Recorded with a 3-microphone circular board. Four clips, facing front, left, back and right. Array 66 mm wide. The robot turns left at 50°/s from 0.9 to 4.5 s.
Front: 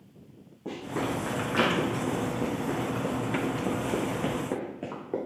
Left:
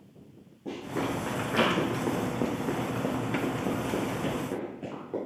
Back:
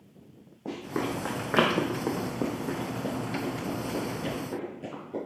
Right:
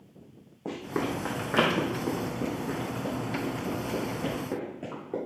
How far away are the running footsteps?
About 3 m.